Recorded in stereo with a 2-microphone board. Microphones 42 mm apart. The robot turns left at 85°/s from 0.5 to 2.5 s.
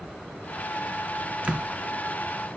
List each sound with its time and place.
1.4 s a door slam: 25° right (ahead or behind), 1.2 m; by 1.7 s 30° right (ahead or behind), 1.2 m